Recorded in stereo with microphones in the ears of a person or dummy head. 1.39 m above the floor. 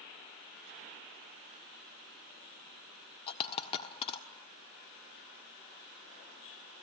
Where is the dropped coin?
30° left (ahead or behind), 1.3 m.